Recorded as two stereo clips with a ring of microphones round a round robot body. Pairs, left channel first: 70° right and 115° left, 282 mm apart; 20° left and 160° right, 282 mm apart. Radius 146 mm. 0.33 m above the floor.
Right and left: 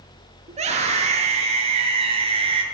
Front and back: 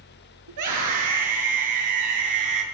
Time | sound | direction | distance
0.5 | a scream | straight behind | 8 m